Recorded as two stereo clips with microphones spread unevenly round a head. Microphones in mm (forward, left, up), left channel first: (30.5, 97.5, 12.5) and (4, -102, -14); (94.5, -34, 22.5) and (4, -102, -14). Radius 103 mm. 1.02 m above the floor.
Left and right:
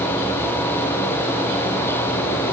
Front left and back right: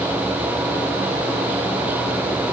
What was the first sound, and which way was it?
Only background noise.